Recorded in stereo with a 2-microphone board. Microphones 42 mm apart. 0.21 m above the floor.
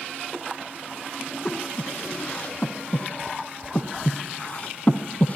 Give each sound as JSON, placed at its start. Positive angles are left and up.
{"t": 1.4, "sound": "breathing", "side_deg": 40, "distance_m": 1.2}